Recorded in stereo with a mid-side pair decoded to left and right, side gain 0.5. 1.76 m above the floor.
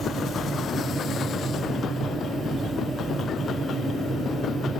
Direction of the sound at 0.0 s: 30° right.